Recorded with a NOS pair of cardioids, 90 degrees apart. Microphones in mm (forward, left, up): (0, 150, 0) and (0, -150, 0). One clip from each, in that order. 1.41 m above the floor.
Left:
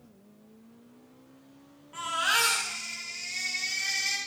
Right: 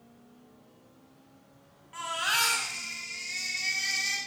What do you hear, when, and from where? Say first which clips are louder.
1.9 s a baby crying: left 2 dB; 25° right, 8 m